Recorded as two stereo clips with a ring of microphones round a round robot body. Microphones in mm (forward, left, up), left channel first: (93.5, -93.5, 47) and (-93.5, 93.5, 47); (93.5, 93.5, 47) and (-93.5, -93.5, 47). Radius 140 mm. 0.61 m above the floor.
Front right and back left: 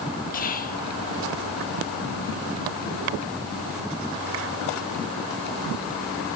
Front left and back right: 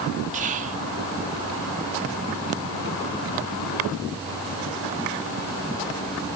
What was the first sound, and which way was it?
Whispering, 85° right.